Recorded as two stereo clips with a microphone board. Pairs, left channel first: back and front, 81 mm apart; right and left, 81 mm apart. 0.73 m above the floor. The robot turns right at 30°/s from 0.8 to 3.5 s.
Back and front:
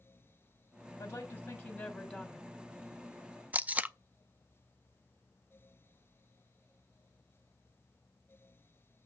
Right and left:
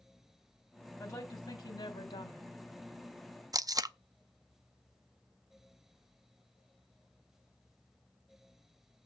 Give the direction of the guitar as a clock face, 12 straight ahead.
No guitar in this recording.